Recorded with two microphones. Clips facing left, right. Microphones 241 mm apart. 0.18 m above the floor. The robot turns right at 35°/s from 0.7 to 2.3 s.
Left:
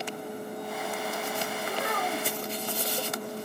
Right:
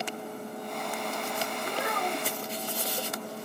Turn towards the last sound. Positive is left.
turn(degrees=-30)  # may be behind; listen again after turning